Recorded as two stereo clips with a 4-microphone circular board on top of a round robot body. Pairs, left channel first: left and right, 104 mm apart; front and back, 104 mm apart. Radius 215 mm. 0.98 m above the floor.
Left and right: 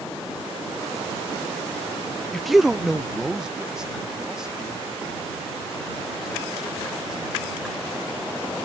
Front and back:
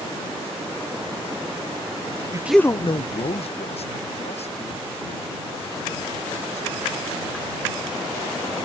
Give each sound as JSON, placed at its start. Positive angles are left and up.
{"t": 2.3, "sound": "a man speaking", "azimuth_deg": 175}